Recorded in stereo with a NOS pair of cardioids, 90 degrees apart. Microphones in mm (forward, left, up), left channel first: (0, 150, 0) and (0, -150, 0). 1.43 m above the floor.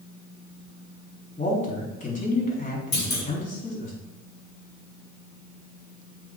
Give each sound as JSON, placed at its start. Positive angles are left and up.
{"t": 1.4, "sound": "a man speaking", "azimuth_deg": 25, "distance_m": 3.5}
{"t": 2.9, "sound": "a clunk", "azimuth_deg": 30, "distance_m": 2.5}